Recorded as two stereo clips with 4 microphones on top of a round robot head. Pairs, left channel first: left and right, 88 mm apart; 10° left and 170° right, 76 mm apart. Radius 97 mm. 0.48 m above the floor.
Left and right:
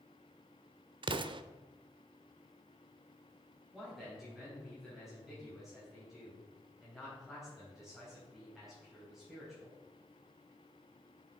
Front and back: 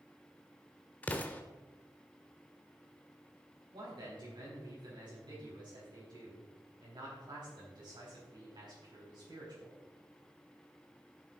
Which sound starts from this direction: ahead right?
An explosion, at 1.0 s.